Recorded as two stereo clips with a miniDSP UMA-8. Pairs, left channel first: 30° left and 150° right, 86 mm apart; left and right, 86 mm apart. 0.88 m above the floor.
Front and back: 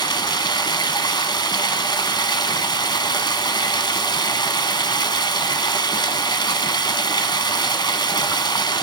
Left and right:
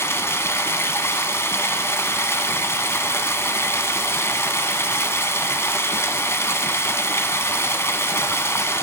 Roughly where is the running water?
Ahead left.